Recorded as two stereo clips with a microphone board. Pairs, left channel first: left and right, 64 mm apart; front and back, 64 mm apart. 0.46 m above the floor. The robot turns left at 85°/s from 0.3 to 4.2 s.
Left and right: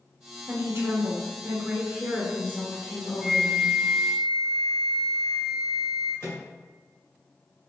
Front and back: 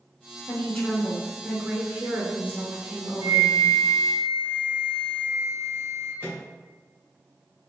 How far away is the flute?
About 1.9 m.